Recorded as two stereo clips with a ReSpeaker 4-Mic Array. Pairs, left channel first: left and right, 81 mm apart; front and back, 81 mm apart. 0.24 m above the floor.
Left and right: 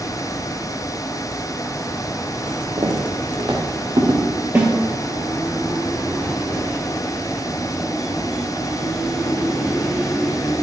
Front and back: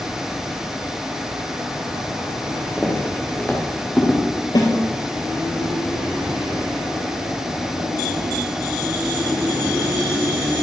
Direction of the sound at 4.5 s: 25° right.